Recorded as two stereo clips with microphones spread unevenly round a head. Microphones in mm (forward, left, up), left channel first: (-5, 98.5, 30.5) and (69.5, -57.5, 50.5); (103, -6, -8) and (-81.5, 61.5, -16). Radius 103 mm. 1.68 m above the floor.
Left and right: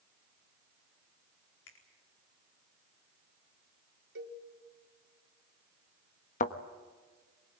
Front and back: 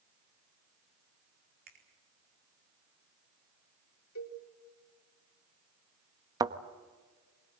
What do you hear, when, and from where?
1.7 s a finger snap: 115° left, 4.5 m
4.2 s a cowbell: 45° right, 3.5 m
6.4 s a thud: 105° left, 1.1 m